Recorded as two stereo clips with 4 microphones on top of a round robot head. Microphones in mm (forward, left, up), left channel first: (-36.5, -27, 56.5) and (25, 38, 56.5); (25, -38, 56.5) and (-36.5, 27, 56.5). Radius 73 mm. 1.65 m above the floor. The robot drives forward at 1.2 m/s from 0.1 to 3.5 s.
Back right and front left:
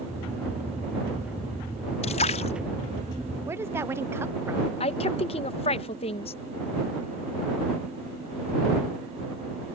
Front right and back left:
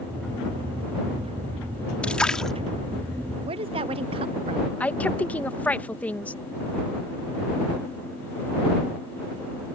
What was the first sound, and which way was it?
A splash, 125° right.